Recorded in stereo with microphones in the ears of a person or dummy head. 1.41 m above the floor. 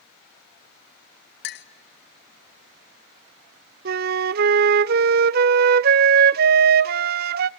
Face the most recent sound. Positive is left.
turn(degrees=-45)  # may be behind; listen again after turning